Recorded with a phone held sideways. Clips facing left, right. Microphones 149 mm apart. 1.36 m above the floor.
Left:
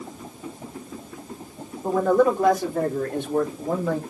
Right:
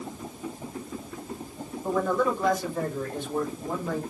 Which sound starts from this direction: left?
A man speaking, at 1.8 s.